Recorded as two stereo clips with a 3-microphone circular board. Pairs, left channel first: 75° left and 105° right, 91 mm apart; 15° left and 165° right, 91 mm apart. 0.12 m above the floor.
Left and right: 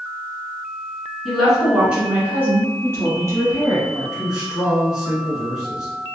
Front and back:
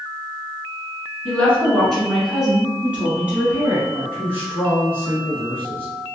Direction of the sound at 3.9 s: 170° right.